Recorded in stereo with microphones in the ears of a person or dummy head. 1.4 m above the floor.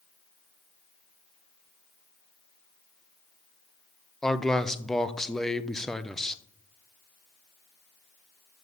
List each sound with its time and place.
4.2 s a man speaking: 5° left (ahead or behind), 0.6 m